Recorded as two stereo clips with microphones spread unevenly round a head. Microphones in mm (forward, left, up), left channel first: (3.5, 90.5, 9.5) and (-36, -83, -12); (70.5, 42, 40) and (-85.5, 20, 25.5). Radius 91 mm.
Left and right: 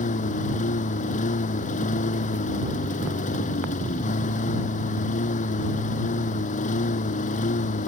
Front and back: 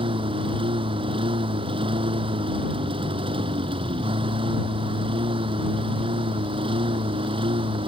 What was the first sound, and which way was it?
A lawn mower, 130° left.